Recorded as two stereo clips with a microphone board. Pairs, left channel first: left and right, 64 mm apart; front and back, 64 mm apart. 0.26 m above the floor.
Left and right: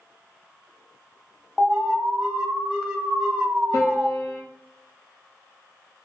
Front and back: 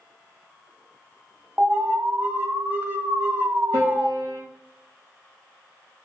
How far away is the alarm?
About 0.9 m.